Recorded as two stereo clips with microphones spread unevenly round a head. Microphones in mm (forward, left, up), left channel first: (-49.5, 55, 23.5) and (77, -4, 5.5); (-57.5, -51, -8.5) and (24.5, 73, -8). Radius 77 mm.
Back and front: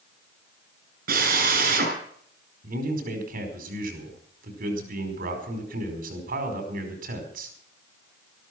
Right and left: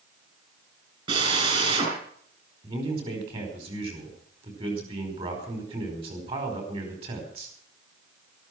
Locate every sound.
1.1 s a drill: 5° right, 5.5 m
2.6 s a man speaking: straight ahead, 5 m